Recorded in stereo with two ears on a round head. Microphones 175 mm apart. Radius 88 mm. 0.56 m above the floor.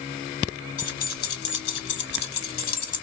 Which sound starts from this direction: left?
Keys jangling, at 0.8 s.